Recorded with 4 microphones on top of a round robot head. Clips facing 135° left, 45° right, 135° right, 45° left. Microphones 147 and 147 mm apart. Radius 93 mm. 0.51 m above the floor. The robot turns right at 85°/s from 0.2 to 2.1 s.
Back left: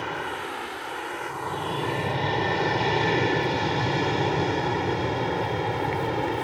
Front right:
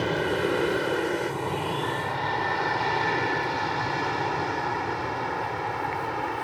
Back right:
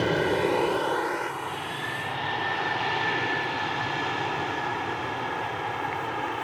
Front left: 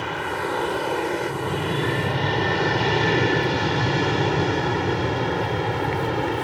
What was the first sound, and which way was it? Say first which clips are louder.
An aircraft: front right 7 dB, back right 4 dB; 90° right.